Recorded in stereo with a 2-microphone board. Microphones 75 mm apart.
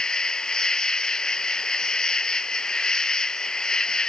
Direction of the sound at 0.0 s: 10° left (ahead or behind).